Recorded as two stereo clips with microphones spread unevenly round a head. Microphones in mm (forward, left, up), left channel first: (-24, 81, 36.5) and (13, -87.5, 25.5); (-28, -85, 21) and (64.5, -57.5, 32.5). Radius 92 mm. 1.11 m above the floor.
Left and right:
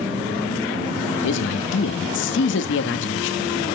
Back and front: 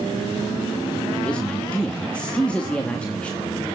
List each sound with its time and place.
1.2 s a man speaking: 115° left, 2 m